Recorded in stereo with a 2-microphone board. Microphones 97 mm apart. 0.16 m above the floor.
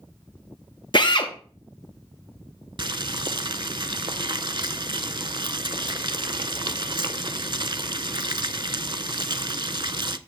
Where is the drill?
55° left (ahead or behind), 1.2 m.